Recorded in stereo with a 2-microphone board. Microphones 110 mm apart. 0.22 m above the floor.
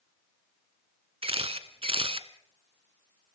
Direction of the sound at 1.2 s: 60° right (ahead or behind).